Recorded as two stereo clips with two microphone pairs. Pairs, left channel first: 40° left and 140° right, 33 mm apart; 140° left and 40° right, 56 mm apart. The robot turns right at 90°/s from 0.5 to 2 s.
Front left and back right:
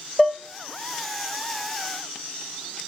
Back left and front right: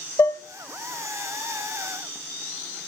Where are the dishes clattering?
125° left, 0.6 m.